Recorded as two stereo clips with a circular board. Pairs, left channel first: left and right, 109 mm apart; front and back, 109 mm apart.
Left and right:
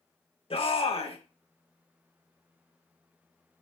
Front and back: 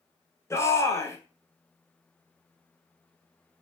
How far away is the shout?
About 1.9 m.